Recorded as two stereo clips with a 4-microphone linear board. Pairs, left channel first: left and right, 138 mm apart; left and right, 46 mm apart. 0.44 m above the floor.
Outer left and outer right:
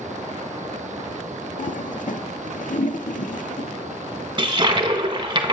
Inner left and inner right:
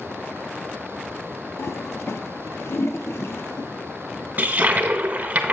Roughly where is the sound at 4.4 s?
Right.